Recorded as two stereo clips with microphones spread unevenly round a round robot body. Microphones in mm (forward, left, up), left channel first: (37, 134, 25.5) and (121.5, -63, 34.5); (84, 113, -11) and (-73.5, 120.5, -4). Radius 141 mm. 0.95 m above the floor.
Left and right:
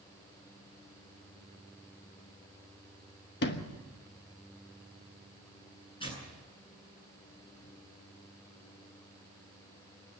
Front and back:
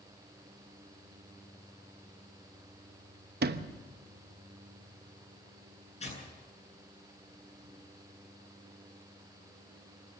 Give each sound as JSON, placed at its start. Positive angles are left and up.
{"t": 3.4, "sound": "a sliding door", "azimuth_deg": 160, "distance_m": 1.0}
{"t": 6.0, "sound": "tearing paper", "azimuth_deg": 45, "distance_m": 9.5}